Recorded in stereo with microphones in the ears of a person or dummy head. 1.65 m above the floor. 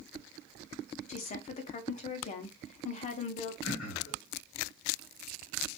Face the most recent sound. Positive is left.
turn(degrees=75)  # may be behind; listen again after turning